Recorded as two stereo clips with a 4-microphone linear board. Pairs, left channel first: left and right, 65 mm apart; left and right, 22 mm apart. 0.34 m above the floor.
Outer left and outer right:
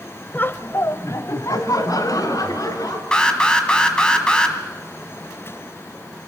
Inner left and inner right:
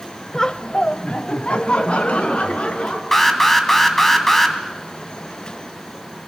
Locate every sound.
0.3 s laughter: 30° left (ahead or behind), 1.3 m; by 3.0 s 80° left, 5 m
3.1 s an alarm: 15° left (ahead or behind), 3 m